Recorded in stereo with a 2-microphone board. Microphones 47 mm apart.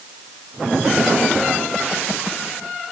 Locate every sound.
Only background noise.